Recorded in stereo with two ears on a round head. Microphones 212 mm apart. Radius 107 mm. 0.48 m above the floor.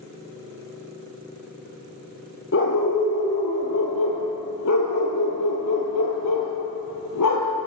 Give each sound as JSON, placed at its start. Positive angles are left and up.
{"t": 2.5, "sound": "a dog barking", "side_deg": 50, "distance_m": 7.0}